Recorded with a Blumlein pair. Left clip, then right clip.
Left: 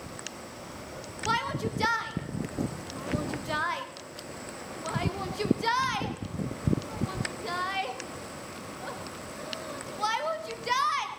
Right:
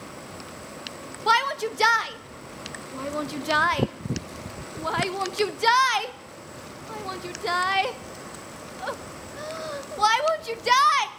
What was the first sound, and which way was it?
A shout, 65° right.